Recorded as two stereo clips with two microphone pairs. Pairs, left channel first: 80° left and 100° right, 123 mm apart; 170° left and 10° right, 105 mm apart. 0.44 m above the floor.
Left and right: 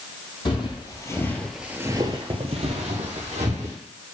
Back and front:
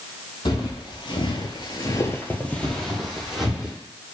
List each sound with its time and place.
0.5 s footsteps: 125° left, 1.1 m; by 3.8 s 95° right, 1.5 m